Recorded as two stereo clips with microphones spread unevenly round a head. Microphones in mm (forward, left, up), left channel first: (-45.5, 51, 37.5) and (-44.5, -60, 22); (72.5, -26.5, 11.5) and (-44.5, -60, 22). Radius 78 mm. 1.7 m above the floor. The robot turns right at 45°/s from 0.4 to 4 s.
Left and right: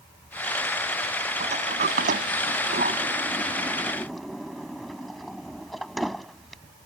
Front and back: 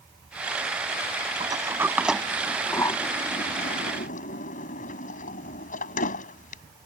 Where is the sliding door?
115° right; by 6.6 s 5° left.